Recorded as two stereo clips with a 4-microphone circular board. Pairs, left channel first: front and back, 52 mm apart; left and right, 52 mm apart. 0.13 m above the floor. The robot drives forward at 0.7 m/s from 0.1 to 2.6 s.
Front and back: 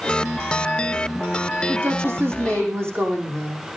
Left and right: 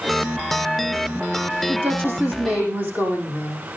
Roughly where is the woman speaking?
Behind right.